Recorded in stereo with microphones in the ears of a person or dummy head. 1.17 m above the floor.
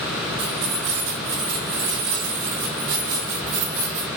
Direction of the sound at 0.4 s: 75° right (ahead or behind).